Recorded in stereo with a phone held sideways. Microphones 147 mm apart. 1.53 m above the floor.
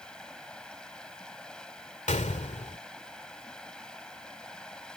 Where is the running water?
5° left (ahead or behind).